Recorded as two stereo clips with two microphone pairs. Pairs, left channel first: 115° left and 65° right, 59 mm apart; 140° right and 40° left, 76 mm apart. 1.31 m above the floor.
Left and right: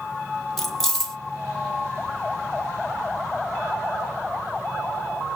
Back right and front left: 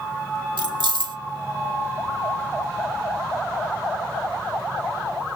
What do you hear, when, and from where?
0.6 s keys jangling: 30° left, 1.0 m